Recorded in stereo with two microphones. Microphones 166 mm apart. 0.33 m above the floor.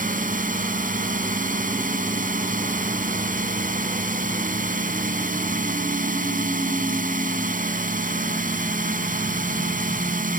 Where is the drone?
55° right (ahead or behind).